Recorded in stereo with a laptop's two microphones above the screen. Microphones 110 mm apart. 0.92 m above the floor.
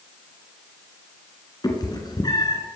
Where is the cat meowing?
40° left (ahead or behind), 2.5 m.